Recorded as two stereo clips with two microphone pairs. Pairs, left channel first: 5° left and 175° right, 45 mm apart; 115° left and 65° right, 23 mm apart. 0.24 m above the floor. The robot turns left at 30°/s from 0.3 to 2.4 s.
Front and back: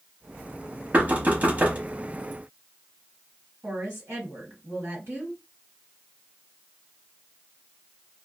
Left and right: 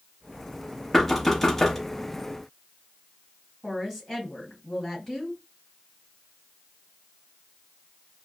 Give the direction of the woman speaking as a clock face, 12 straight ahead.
5 o'clock.